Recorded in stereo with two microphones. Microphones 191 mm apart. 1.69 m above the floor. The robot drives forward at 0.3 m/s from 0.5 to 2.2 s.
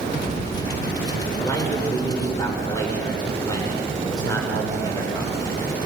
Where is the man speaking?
20° left (ahead or behind), 7 m.